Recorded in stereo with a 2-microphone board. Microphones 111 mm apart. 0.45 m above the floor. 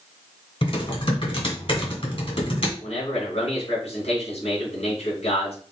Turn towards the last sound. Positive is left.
turn(degrees=65)  # may be behind; listen again after turning